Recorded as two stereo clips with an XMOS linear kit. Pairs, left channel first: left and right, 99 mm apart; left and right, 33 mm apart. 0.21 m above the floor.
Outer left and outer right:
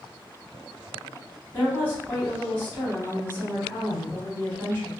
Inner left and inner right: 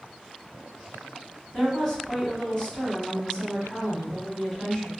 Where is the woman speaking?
20° left (ahead or behind), 1.6 m.